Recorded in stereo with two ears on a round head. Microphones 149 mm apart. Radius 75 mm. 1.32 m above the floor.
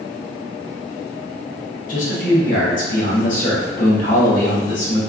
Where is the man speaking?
50° left (ahead or behind), 1.1 m.